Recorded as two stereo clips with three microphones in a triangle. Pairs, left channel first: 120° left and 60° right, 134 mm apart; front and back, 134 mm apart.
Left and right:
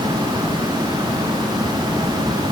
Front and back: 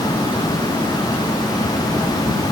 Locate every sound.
Only background noise.